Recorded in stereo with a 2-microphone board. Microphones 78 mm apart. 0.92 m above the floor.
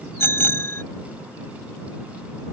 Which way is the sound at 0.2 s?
30° left (ahead or behind).